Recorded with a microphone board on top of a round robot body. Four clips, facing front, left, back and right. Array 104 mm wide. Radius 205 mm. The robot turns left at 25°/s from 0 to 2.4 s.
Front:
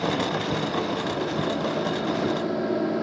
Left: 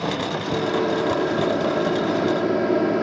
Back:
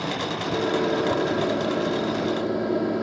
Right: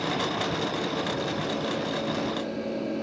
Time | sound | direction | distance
0.5 | a microwave | 135° left | 1.3 m